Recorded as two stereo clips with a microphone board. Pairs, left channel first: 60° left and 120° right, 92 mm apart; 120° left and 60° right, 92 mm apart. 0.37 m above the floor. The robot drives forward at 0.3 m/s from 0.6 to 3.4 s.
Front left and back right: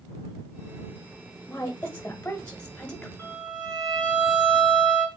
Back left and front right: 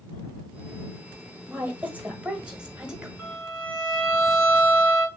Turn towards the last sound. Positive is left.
turn(degrees=-155)